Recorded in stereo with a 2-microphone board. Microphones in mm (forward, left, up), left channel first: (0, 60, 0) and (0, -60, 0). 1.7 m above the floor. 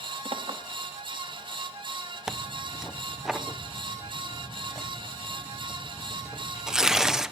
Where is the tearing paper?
5° right (ahead or behind), 0.9 m.